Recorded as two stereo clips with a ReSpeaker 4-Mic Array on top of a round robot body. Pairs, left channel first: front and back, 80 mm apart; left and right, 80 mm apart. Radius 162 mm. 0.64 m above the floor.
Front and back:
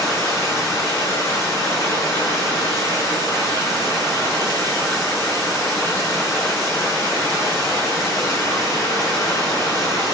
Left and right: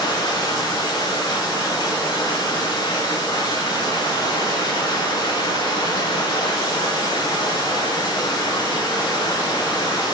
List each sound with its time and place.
0.0 s running water: 55° left, 5.5 m